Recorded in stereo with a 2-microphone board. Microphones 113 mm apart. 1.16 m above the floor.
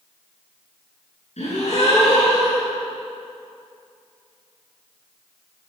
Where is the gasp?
75° left (ahead or behind), 10 m.